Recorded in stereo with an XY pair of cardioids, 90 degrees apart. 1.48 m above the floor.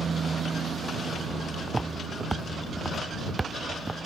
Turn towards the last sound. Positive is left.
turn(degrees=-20)